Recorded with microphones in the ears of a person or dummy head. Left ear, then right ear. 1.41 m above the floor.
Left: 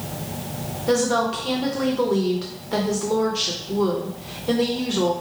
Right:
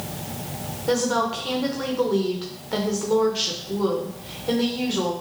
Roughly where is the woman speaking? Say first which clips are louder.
Left 2 dB; centre.